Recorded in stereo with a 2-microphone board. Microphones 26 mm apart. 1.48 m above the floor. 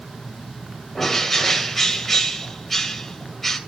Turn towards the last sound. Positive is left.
turn(degrees=5)  # may be behind; listen again after turning